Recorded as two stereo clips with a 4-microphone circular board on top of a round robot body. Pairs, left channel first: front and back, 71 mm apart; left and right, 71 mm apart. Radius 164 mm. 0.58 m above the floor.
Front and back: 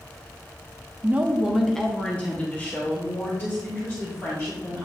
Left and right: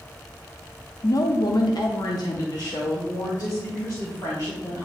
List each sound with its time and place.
1.0 s a woman speaking: 125° left, 0.9 m; by 4.9 s 50° left, 3.5 m